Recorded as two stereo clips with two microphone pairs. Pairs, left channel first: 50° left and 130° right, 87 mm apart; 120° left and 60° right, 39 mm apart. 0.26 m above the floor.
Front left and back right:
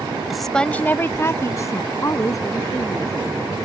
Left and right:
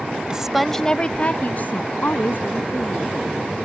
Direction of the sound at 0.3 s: 50° right.